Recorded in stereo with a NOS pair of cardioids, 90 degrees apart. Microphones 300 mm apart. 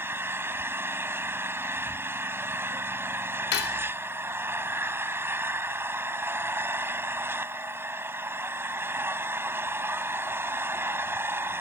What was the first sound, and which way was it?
An engine running, 10° right.